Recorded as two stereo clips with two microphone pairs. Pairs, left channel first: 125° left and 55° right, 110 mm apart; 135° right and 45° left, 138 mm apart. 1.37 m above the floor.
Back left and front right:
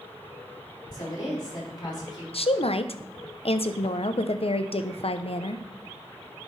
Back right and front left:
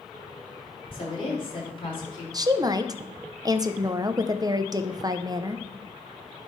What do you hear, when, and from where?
0.9 s a woman speaking: 175° left, 3.5 m
2.3 s a woman speaking: 105° left, 0.5 m